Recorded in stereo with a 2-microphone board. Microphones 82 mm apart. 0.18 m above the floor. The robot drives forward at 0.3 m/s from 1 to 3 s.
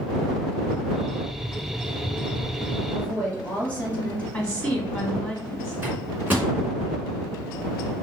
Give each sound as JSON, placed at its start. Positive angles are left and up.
{"t": 2.9, "sound": "a woman speaking", "side_deg": 20, "distance_m": 2.5}
{"t": 4.3, "sound": "a woman speaking", "side_deg": 15, "distance_m": 1.7}
{"t": 5.8, "sound": "a microwave", "side_deg": -20, "distance_m": 2.0}